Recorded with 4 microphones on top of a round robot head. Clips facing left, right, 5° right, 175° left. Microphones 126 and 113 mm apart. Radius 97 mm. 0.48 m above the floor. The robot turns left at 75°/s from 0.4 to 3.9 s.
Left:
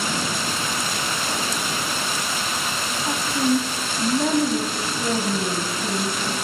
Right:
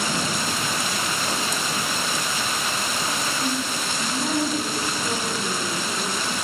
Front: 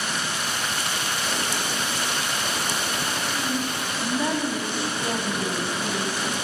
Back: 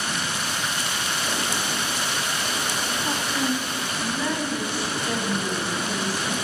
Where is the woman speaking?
130° left, 3.5 m; by 6.3 s 65° left, 3.5 m.